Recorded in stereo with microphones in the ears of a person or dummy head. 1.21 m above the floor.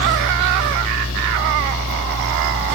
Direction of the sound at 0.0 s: 75° left (ahead or behind).